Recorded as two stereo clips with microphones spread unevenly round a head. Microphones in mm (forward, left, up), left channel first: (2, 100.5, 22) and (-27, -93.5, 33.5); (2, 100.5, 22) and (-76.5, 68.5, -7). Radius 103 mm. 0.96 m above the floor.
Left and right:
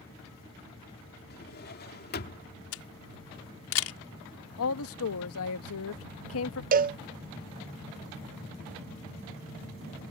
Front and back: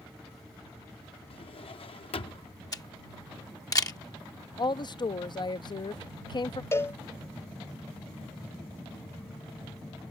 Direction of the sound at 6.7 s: 60° right.